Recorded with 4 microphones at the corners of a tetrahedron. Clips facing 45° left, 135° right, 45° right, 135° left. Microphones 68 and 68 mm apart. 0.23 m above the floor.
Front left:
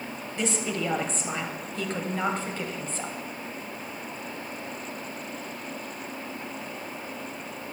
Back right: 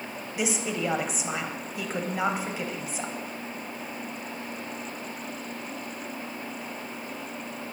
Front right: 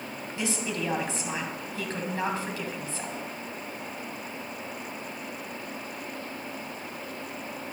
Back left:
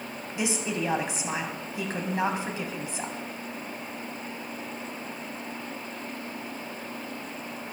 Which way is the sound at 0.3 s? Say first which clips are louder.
Even, back left 2 dB; 165° left.